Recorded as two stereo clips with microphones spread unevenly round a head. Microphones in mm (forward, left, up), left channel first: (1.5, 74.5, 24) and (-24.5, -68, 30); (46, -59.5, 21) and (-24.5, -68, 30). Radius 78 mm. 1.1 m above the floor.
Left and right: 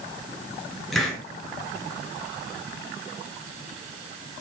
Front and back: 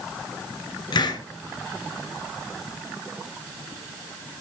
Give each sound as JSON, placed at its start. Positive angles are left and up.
{"t": 0.9, "sound": "a hiss", "azimuth_deg": -10, "distance_m": 4.0}